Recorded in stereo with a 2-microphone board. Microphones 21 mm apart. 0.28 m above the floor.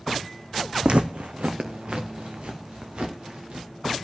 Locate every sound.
0.8 s footsteps: 65° right (ahead or behind), 0.8 m; by 3.7 s 55° right (ahead or behind), 4 m